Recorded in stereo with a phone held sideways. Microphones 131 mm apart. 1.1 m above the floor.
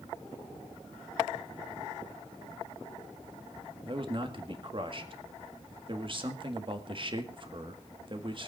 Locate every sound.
3.9 s a man speaking: 40° right (ahead or behind), 1.8 m